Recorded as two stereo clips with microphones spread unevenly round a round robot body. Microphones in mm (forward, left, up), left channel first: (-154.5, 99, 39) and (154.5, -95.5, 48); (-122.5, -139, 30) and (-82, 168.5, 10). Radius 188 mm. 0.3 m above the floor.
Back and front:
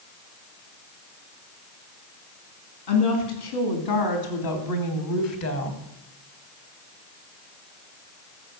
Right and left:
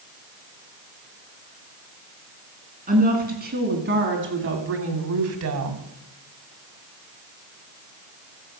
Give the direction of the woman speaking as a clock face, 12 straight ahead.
7 o'clock.